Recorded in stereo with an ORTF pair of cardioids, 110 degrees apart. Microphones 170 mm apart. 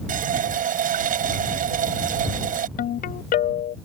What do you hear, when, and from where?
0.1 s a running tap: 55° right
2.8 s a ringtone: 60° left